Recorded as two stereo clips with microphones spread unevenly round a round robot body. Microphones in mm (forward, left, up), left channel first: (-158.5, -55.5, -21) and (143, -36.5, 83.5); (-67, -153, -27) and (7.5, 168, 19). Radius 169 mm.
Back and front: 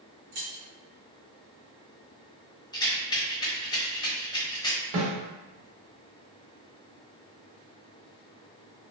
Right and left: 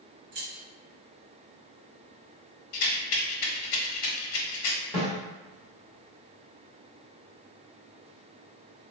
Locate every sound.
0.3 s keys jangling: 40° left, 1.8 m
2.7 s a rattle: 90° right, 1.2 m
4.9 s a snare drum: 20° right, 1.6 m